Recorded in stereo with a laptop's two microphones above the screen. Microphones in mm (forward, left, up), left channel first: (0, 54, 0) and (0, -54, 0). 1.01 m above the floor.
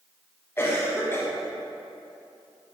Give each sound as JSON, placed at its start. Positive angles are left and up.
{"t": 0.6, "sound": "a cough", "side_deg": 25, "distance_m": 1.3}